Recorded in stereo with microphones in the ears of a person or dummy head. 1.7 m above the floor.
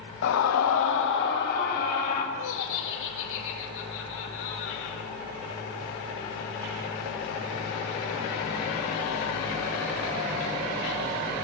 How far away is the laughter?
About 2.5 m.